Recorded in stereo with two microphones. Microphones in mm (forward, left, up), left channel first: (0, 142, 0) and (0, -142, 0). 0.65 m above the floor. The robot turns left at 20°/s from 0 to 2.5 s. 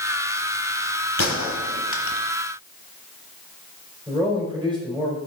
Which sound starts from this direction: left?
A gunshot, at 1.2 s.